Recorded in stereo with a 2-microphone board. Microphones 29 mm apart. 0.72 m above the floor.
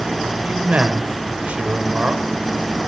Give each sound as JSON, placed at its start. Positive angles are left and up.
{"t": 0.4, "sound": "a man speaking", "side_deg": -50, "distance_m": 2.5}